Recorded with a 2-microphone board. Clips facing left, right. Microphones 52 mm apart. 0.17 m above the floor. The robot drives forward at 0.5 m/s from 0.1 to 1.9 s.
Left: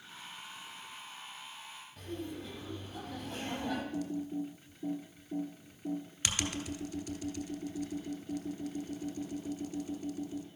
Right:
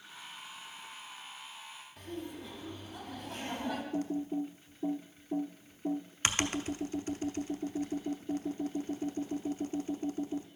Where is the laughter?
Centre (ahead or behind), 5 m.